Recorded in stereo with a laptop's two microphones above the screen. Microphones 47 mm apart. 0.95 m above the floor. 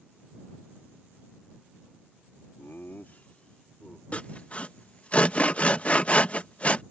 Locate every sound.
2.6 s laughter: 65° left (ahead or behind); by 4.0 s 15° left (ahead or behind)
4.1 s sawing: 30° left (ahead or behind)